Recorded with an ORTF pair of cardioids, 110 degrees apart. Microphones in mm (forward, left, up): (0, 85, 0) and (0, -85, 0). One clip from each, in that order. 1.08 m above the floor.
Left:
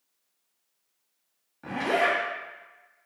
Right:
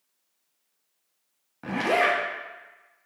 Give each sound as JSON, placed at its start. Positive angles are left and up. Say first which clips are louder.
{"t": 1.6, "sound": "a zipper", "louder": "right 2 dB", "azimuth_deg": -30, "distance_m": 0.8}